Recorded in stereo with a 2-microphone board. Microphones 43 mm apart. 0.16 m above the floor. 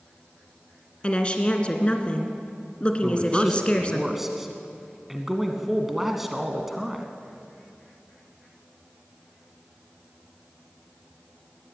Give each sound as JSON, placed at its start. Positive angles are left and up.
{"t": 1.0, "sound": "a woman speaking", "side_deg": 25, "distance_m": 2.0}
{"t": 3.0, "sound": "a man speaking", "side_deg": -5, "distance_m": 1.4}